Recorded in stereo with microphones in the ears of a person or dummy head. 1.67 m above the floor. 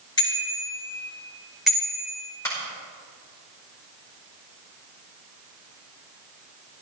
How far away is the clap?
About 5 m.